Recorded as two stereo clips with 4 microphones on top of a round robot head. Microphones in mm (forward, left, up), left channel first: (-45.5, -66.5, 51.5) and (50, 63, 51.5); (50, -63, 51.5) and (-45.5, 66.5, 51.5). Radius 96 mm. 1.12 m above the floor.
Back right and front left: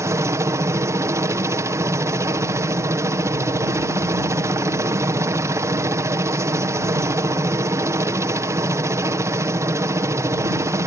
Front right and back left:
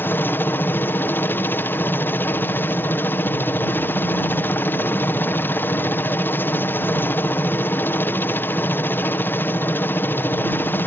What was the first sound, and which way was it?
A helicopter, 5° left.